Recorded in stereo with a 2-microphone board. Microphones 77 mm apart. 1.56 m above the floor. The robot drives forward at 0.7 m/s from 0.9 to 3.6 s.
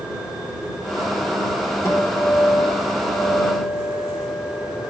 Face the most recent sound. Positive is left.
turn(degrees=20)  # may be behind; listen again after turning